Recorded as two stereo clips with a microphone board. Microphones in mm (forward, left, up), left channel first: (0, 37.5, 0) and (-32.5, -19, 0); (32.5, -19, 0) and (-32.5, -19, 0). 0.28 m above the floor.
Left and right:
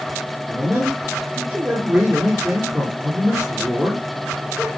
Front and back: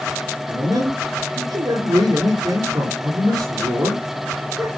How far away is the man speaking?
About 5.5 m.